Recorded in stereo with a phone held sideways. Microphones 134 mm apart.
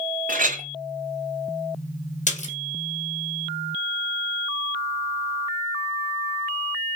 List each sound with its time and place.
0.3 s a clink: 75° right (ahead or behind), 0.6 m
2.3 s a splash: 65° left (ahead or behind), 1.2 m